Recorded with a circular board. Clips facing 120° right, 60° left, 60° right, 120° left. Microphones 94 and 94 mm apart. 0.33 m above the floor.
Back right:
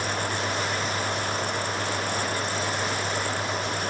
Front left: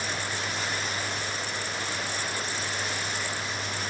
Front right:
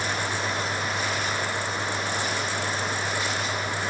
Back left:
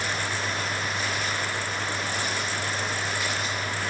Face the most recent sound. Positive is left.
No sound to turn to.